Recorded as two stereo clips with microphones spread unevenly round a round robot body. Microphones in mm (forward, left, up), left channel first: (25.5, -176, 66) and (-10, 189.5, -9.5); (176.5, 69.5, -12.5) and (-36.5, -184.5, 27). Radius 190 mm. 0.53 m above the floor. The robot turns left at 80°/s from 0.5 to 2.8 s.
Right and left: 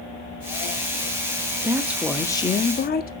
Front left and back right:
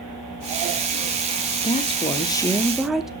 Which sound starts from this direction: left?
A woman speaking, at 1.6 s.